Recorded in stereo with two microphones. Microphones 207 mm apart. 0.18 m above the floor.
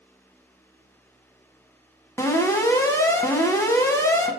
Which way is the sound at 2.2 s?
15° left (ahead or behind).